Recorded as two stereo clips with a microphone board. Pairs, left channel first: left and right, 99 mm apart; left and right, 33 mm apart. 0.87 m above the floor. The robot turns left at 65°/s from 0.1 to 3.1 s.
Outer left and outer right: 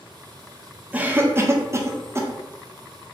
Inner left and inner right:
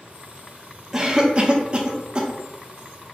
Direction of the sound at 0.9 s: 15° right (ahead or behind).